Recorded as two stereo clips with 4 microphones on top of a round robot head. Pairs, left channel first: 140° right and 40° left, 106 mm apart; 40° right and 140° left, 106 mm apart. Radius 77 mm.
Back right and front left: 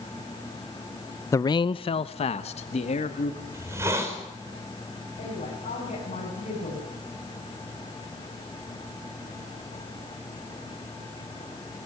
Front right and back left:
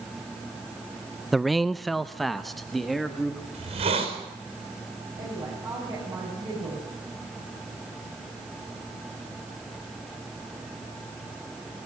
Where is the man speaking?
135° right, 0.5 m; by 3.4 s 130° right, 2 m.